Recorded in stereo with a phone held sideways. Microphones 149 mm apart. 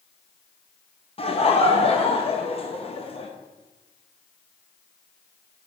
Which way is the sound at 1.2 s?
40° left (ahead or behind).